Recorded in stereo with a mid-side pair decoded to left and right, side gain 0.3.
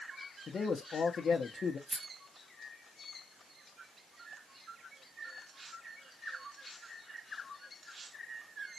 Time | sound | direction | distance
0.5 | a man speaking | 65° left | 0.7 m
1.9 | a rattle | 15° right | 1.2 m